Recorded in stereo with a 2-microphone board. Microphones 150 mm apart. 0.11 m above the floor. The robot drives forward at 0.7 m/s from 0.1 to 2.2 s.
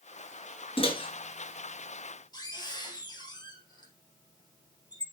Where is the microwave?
40° left (ahead or behind), 1.6 m; by 5.0 s 30° left (ahead or behind), 2 m.